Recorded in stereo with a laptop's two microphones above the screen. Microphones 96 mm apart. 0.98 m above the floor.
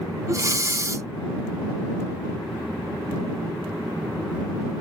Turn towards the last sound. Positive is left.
turn(degrees=-35)  # may be behind; listen again after turning